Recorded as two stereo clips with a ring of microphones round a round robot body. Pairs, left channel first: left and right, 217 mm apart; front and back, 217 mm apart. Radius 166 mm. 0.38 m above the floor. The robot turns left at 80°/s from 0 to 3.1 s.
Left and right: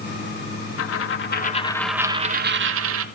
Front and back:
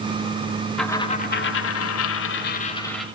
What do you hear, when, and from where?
0.8 s a dropped coin: 90° left, 0.9 m; by 3.0 s 95° right, 0.9 m